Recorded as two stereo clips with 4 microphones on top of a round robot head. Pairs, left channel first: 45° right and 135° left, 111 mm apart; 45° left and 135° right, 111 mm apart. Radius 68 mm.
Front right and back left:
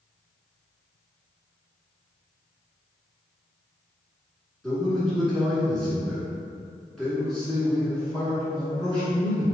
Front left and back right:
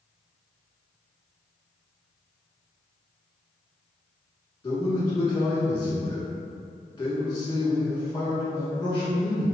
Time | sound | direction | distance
4.6 | a man speaking | 55° left | 1.5 m